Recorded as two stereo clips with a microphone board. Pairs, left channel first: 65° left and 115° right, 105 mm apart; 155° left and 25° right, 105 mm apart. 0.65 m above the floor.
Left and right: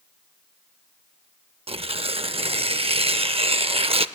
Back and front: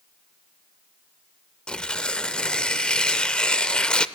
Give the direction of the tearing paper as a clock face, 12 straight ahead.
4 o'clock.